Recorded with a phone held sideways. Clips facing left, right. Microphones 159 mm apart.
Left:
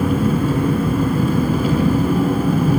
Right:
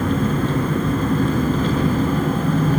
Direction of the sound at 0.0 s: 10° left (ahead or behind).